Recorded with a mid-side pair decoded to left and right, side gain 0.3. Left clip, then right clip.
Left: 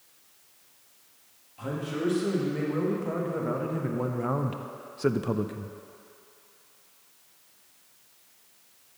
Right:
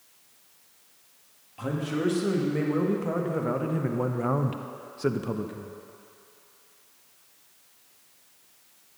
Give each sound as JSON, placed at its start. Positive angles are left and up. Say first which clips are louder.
{"t": 1.6, "sound": "a man speaking", "louder": "right 2 dB", "azimuth_deg": -50, "distance_m": 2.0}